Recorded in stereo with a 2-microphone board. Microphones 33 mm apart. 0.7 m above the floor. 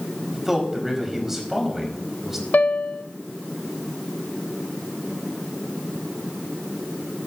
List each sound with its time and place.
0.3 s a man speaking: 10° right (ahead or behind), 4 m
2.5 s a piano: 60° left (ahead or behind), 0.9 m